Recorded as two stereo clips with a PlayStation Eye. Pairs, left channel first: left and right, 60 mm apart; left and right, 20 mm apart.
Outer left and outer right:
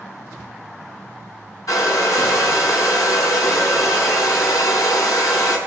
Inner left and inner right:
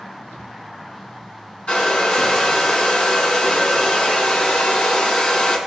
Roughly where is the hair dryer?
Left.